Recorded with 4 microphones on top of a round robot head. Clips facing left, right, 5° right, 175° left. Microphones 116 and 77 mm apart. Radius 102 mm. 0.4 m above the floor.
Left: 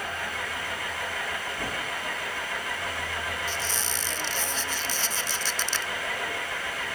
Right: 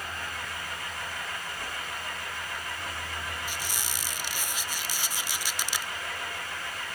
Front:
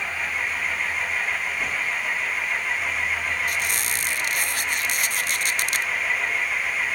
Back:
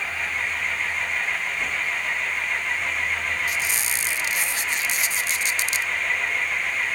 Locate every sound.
0.0 s an engine running: 80° left
3.5 s a squeak: 15° right